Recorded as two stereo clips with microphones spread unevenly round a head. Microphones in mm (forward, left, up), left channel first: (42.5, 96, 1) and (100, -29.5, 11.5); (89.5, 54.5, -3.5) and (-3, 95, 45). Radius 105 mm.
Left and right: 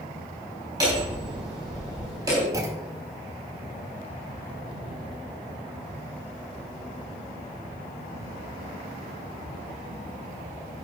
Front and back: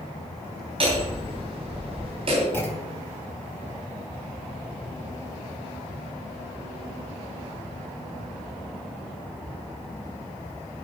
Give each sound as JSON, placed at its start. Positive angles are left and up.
{"t": 0.8, "sound": "hammering", "azimuth_deg": -140, "distance_m": 3.0}
{"t": 2.5, "sound": "a clunk", "azimuth_deg": -120, "distance_m": 0.7}